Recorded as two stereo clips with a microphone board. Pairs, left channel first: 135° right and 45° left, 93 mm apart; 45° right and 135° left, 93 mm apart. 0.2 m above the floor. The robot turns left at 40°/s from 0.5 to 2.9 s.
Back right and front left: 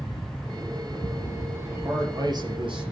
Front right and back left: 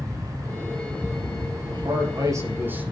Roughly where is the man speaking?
Left.